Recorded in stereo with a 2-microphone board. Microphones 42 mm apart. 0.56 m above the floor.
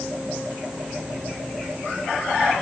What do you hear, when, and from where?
Only background noise.